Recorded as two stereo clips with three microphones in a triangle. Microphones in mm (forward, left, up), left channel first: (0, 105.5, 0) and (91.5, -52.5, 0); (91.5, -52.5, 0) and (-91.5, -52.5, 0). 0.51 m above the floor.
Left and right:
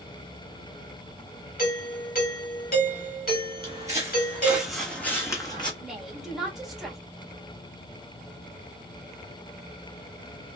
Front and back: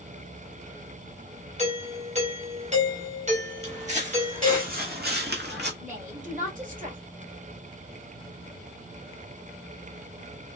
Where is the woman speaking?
150° right, 1.6 m.